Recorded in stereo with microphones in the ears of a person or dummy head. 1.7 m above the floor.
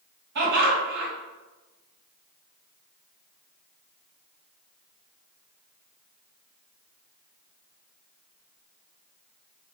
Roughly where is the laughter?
Right.